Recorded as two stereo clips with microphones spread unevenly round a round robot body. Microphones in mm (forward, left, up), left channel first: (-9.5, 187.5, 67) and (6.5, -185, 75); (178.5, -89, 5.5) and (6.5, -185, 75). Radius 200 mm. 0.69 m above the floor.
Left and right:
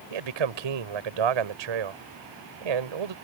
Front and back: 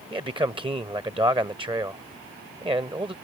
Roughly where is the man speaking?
Right.